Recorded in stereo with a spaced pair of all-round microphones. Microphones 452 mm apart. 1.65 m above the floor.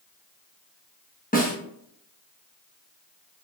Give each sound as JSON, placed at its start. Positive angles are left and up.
{"t": 1.3, "sound": "a snare drum", "side_deg": 20, "distance_m": 0.9}